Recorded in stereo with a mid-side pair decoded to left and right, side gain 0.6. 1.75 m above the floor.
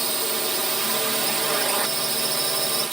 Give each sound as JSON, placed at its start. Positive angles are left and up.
{"t": 0.0, "sound": "a drone", "azimuth_deg": -20}